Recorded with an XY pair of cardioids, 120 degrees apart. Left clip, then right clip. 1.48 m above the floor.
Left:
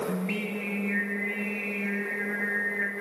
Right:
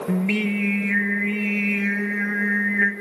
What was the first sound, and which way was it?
Singing, 55° right.